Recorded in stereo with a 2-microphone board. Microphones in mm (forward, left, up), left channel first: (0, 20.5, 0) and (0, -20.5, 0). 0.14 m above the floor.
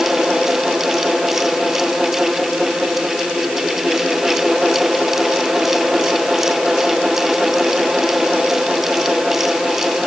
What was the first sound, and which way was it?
Only background noise.